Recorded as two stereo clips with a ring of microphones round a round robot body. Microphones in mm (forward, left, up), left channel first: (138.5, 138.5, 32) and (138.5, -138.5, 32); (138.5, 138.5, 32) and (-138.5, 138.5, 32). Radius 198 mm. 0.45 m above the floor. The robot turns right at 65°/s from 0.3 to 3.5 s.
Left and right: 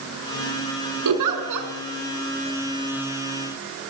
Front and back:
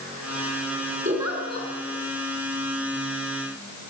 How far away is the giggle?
About 3.5 m.